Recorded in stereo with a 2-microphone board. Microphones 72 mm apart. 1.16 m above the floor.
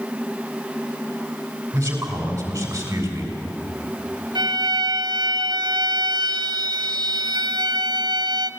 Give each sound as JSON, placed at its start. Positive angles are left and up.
{"t": 1.7, "sound": "a man speaking", "side_deg": -35, "distance_m": 6.0}
{"t": 4.3, "sound": "a violin", "side_deg": -70, "distance_m": 1.0}